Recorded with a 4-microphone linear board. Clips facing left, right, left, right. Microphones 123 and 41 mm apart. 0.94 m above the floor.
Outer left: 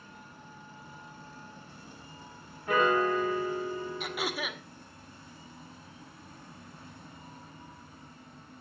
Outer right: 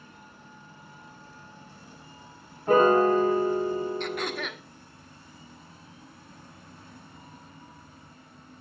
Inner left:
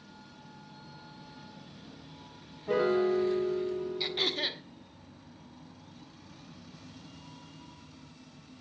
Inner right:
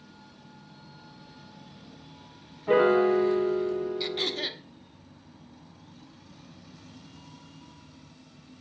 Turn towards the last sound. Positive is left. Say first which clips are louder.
# outer right 3 dB, inner right 1 dB
turn(degrees=5)  # may be behind; listen again after turning